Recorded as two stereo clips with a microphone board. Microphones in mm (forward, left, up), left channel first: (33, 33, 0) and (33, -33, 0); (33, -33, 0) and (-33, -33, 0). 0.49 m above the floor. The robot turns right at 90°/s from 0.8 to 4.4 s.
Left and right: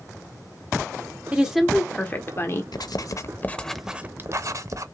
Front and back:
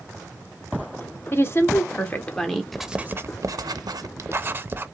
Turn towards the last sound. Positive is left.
turn(degrees=-125)